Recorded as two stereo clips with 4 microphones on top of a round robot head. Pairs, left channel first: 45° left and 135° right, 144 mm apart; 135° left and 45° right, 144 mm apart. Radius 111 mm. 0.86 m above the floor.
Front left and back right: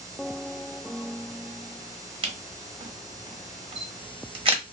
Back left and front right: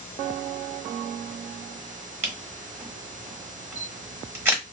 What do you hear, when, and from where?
2.2 s a camera shutter: 110° right, 1.1 m